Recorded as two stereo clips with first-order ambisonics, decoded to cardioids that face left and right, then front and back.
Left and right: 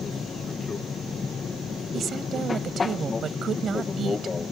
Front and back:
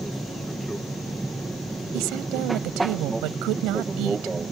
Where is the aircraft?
105° left; by 4.5 s 140° left.